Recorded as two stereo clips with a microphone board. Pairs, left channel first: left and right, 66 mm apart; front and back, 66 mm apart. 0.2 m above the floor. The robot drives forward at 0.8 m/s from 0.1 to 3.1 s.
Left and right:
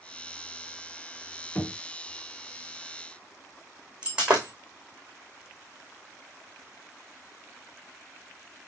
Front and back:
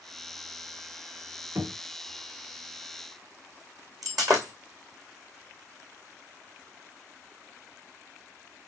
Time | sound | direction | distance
1.6 | knocking | 150° left | 1.0 m
4.0 | breaking glass | 165° right | 2 m